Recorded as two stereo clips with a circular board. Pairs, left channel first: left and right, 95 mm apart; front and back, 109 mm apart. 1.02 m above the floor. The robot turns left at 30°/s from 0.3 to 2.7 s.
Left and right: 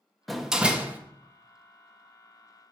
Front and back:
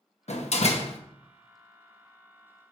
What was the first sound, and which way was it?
A door slam, straight ahead.